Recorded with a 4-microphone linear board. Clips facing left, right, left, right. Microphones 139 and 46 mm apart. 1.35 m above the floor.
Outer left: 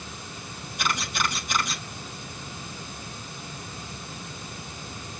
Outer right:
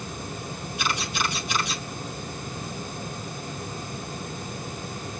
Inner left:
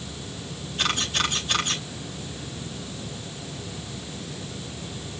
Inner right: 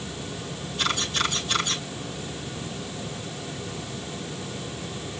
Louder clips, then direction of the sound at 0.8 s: Even, inner left 1 dB; 50° left (ahead or behind).